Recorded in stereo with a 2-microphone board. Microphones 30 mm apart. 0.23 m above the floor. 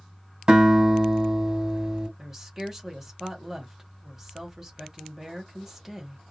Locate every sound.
0.5 s a guitar: 25° right (ahead or behind), 1.4 m
2.2 s a woman speaking: 10° right (ahead or behind), 1.0 m